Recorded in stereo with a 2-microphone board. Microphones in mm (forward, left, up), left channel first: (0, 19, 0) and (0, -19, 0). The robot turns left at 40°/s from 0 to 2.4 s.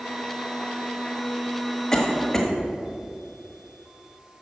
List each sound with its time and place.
1.9 s a cough: 20° left (ahead or behind), 1.4 m; by 2.5 s 15° left (ahead or behind), 1.4 m